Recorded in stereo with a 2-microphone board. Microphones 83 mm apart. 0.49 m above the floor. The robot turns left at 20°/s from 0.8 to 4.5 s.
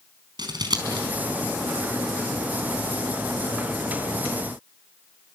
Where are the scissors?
60° right (ahead or behind), 4 m; by 1.1 s 65° right (ahead or behind), 4 m.